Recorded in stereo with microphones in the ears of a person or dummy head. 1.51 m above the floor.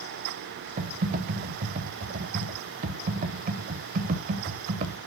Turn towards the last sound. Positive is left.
turn(degrees=-40)  # may be behind; listen again after turning